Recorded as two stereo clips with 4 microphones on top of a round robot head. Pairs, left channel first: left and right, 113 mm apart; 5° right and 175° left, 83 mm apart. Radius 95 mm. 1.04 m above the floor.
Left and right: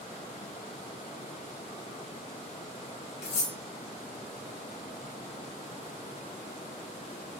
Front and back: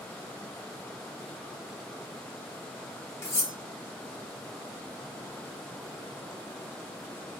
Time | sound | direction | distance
3.2 | cutlery clinking | 55° left | 1.1 m